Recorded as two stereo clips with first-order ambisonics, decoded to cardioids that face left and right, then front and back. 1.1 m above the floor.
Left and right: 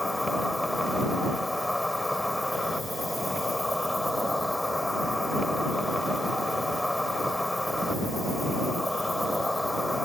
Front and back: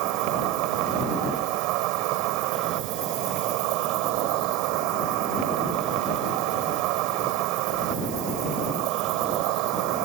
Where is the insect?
175° left.